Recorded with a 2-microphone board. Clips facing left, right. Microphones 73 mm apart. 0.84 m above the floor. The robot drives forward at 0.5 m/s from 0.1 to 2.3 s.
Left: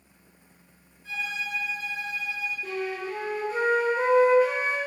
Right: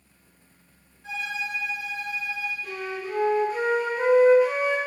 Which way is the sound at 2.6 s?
40° left (ahead or behind).